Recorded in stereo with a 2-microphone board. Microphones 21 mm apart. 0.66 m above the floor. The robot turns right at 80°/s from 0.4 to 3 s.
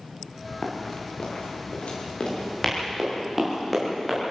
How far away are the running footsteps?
About 6.5 m.